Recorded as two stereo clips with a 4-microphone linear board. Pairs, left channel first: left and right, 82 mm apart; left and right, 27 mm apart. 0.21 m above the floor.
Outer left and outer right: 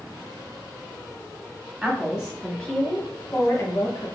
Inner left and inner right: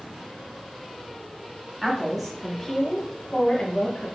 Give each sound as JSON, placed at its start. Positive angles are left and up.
{"t": 1.8, "sound": "a woman speaking", "side_deg": -15, "distance_m": 1.2}